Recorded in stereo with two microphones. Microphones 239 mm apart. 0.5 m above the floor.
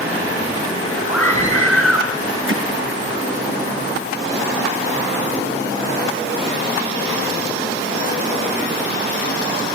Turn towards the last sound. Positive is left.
turn(degrees=-60)  # may be behind; listen again after turning